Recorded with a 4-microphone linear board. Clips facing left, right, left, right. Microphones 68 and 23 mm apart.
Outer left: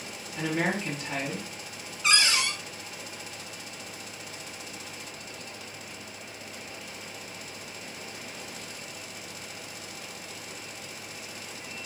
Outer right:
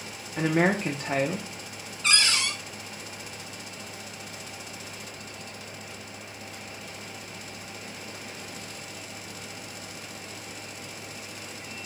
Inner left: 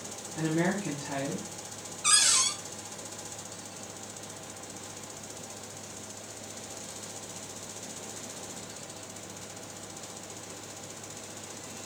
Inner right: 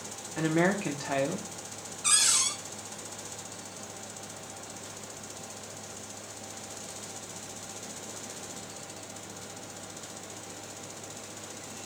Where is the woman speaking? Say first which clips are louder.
Outer right 5 dB, inner right 3 dB; 45° right (ahead or behind), 0.8 m.